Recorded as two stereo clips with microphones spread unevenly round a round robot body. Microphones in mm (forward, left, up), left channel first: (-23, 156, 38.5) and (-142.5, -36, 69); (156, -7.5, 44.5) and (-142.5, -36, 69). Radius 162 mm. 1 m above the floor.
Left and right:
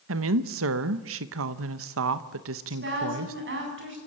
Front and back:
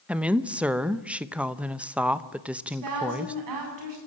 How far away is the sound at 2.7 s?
About 9 m.